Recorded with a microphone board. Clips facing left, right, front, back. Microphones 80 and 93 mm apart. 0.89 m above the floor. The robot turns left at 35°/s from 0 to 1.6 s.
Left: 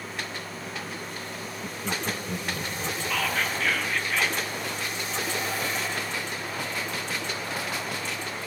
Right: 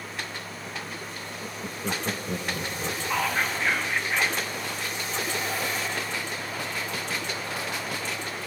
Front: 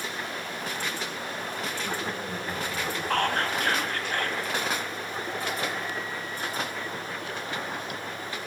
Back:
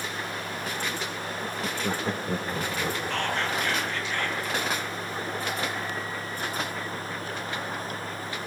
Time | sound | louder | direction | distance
1.4 | laughter | right 3 dB, back 4 dB | 135° right | 0.9 m
3.1 | whispering | right 2 dB, front 6 dB | 25° right | 1.6 m